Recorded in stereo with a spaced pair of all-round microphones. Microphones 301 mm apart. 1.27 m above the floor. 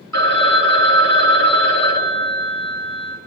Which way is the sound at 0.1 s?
60° left (ahead or behind).